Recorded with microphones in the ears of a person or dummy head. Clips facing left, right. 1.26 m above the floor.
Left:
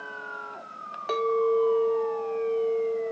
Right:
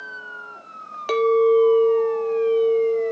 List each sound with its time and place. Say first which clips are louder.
1.1 s a clink: right 8 dB; 35° right (ahead or behind), 0.5 m